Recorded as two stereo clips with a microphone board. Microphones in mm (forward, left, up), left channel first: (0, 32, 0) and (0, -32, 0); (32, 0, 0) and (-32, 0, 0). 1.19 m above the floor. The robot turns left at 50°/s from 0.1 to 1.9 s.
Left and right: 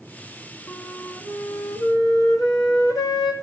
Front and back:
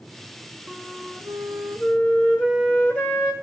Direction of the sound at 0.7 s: 130° left.